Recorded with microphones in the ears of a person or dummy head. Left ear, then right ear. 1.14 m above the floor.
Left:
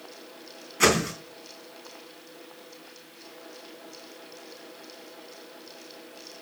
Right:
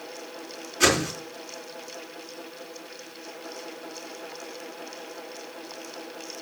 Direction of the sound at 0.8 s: 30° left (ahead or behind).